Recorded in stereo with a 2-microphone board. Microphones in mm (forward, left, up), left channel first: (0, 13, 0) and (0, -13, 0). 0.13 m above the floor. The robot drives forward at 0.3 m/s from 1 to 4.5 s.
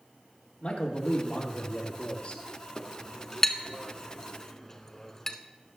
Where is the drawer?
I don't hear a drawer.